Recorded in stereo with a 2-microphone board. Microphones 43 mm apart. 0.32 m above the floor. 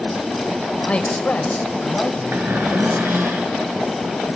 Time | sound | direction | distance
0.9 | a man speaking | 30° left (ahead or behind) | 1.6 m
2.3 | a cupboard door | 70° right (ahead or behind) | 5.5 m